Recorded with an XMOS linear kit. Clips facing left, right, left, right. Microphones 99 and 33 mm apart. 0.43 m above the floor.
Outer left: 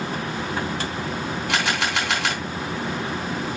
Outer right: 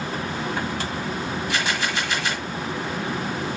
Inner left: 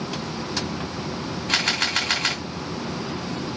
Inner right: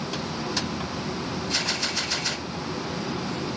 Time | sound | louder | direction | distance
1.5 | a camera shutter | outer left 3 dB, inner left 7 dB | 75° left (ahead or behind) | 3.5 m